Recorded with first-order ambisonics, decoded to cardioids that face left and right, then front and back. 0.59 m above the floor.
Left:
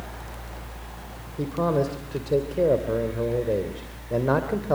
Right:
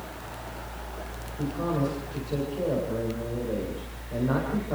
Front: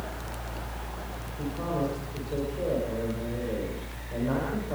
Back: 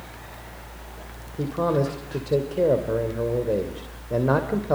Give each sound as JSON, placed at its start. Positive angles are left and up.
{"t": 1.4, "sound": "a man speaking", "azimuth_deg": 140, "distance_m": 2.5}